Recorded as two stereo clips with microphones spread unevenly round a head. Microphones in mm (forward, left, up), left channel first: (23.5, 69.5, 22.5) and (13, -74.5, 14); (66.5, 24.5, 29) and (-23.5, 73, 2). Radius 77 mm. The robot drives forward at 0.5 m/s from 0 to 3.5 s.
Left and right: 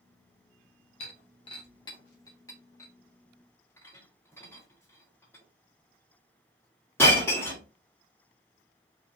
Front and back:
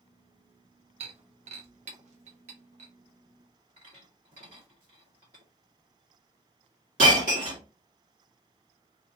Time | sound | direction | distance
1.0 | breaking glass | 125° left | 0.9 m